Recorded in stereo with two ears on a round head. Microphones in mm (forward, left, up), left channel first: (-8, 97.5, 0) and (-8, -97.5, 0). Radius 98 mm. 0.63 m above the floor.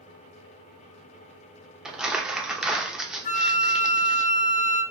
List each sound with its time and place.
1.9 s crumpling: centre (ahead or behind), 0.6 m
3.2 s a flute: 35° left (ahead or behind), 0.6 m